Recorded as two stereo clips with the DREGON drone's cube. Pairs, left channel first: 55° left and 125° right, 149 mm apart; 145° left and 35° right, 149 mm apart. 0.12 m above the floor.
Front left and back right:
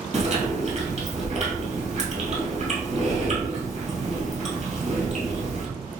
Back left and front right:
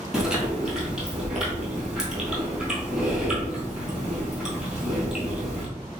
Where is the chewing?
120° right, 1.4 m.